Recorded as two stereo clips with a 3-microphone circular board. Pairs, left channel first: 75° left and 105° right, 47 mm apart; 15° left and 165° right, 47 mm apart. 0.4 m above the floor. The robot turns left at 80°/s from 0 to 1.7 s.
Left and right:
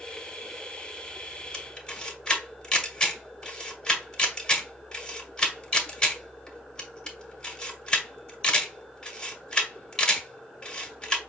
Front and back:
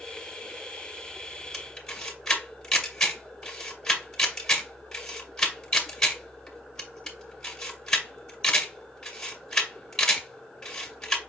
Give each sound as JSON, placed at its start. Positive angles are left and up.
{"t": 1.5, "sound": "a camera shutter", "azimuth_deg": 75, "distance_m": 1.4}